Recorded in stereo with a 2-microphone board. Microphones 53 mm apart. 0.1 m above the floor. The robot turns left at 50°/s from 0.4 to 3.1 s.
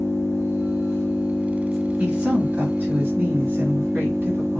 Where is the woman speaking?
45° right, 1.8 m; by 4.6 s 100° right, 1.8 m.